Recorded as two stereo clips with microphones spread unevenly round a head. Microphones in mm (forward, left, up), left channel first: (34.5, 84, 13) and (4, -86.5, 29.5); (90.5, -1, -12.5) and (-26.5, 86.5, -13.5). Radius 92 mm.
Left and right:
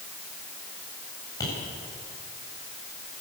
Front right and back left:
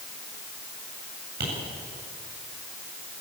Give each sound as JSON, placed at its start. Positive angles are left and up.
{"t": 1.4, "sound": "tapping", "azimuth_deg": 155, "distance_m": 8.5}